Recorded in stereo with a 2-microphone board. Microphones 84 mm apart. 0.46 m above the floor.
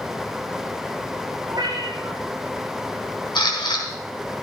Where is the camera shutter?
65° left (ahead or behind), 4 m.